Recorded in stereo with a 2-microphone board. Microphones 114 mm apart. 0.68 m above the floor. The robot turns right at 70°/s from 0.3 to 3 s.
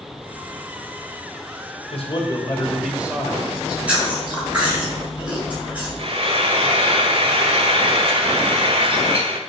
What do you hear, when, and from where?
1.9 s a man speaking: 115° left, 3 m; by 3.3 s 170° right, 3 m
3.4 s chewing: 10° right (ahead or behind), 7 m
6.0 s frying: 55° right (ahead or behind), 1.9 m